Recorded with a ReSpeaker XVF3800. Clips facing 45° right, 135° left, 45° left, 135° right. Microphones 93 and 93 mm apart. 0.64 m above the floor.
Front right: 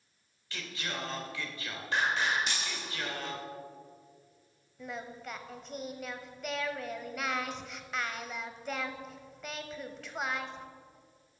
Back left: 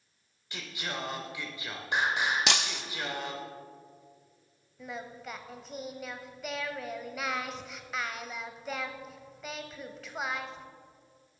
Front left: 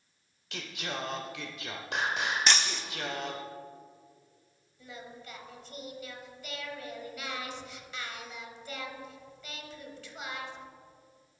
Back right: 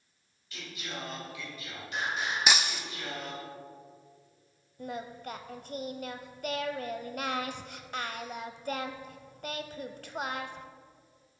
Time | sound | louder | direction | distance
0.5 | singing | back left 1 dB, front left 4 dB | 60° left | 0.9 m
2.5 | breaking glass | back left 6 dB, even | 145° left | 0.5 m
4.8 | singing | even, back right 8 dB | 140° right | 0.6 m